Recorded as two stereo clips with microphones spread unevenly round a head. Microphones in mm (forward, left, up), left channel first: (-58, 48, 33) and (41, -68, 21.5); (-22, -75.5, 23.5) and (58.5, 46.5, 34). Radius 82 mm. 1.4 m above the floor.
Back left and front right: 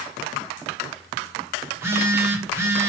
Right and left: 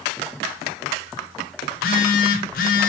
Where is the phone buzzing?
125° right, 1.2 m.